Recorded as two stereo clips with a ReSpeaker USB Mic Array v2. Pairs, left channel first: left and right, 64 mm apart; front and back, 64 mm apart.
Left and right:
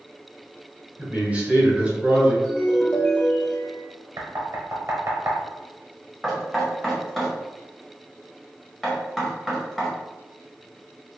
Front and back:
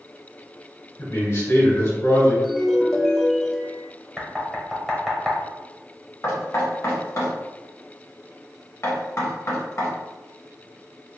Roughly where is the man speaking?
Ahead right.